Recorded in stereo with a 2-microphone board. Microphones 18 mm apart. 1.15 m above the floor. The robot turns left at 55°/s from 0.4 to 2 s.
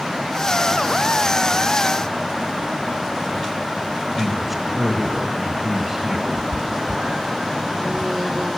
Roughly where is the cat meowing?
Right.